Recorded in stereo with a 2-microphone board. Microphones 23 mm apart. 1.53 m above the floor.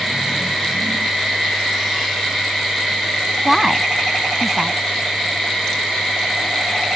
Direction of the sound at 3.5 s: 10° right (ahead or behind).